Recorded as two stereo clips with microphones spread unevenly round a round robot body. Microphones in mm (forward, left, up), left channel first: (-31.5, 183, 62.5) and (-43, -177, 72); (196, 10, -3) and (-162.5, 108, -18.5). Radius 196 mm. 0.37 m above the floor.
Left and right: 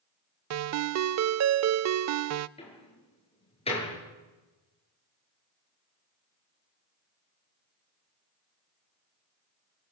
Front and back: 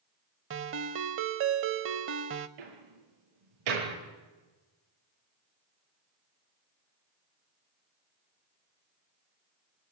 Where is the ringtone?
140° right, 0.5 m.